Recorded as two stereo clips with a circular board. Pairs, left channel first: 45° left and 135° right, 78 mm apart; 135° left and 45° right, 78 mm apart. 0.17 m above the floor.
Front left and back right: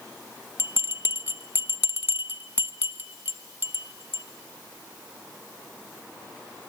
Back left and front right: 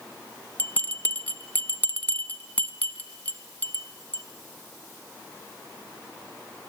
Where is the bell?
170° right, 0.7 m.